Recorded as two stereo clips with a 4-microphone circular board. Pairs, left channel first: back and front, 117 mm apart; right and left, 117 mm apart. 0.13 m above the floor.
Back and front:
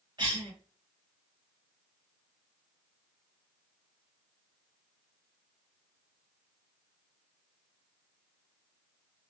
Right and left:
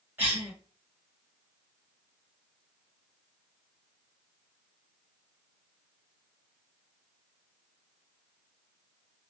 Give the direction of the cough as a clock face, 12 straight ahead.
11 o'clock.